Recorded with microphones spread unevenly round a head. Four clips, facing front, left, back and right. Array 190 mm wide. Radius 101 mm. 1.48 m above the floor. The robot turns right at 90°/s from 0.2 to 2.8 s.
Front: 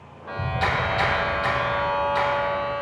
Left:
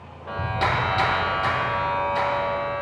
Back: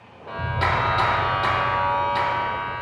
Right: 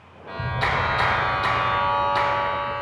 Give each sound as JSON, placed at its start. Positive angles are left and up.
{"t": 0.3, "sound": "a clap", "azimuth_deg": 65, "distance_m": 3.5}